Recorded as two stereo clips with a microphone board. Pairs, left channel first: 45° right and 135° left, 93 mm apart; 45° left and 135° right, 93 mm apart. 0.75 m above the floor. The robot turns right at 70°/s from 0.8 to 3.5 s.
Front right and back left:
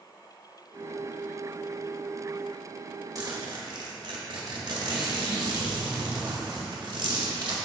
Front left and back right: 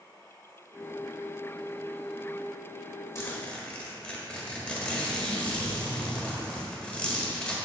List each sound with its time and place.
3.1 s a zipper: 95° left, 1.3 m; by 7.6 s 115° left, 1.3 m